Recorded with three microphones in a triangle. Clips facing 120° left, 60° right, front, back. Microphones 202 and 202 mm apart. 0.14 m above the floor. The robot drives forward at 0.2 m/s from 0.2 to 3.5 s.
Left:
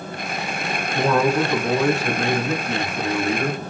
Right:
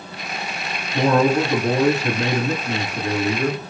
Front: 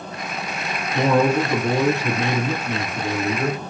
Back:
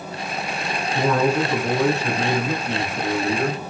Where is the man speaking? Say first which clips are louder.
Right 2 dB, front 2 dB; 45° right, 1.7 m; by 3.6 s 80° right, 1.6 m.